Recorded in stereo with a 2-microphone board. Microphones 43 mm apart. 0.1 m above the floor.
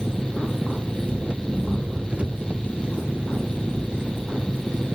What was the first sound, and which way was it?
An engine running, 30° right (ahead or behind).